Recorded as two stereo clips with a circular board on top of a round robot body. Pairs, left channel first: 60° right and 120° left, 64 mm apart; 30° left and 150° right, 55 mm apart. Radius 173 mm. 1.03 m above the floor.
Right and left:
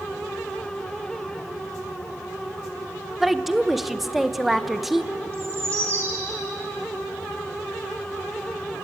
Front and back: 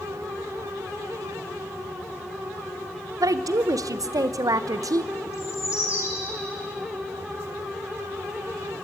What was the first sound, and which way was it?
A woman speaking, 150° right.